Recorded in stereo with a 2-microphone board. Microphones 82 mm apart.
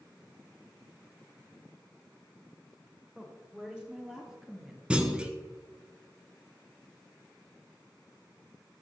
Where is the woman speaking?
15° right (ahead or behind), 3 m; by 4.8 s centre (ahead or behind), 1.4 m.